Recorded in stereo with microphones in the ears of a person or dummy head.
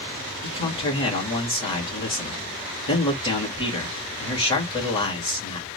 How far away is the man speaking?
About 1.7 m.